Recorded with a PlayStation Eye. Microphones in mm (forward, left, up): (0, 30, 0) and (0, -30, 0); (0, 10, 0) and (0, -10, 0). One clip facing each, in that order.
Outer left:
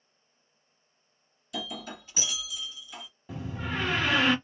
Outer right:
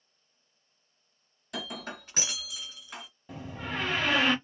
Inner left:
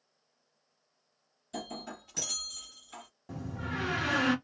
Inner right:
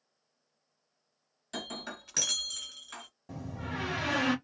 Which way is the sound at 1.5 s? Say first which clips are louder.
Even, inner right 1 dB; 60° right (ahead or behind).